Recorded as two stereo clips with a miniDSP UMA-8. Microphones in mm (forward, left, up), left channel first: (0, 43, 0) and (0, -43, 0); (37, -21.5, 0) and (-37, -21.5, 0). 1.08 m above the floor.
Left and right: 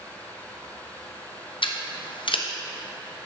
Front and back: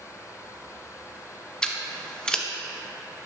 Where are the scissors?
80° left, 0.6 m.